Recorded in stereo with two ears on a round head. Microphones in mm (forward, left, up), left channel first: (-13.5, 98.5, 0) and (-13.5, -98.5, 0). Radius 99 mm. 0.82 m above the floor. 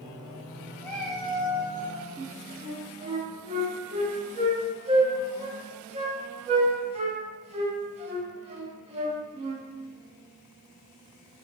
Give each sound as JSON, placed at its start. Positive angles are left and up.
{"t": 0.8, "sound": "a cat meowing", "side_deg": 10, "distance_m": 1.1}
{"t": 2.2, "sound": "a flute", "side_deg": -25, "distance_m": 0.6}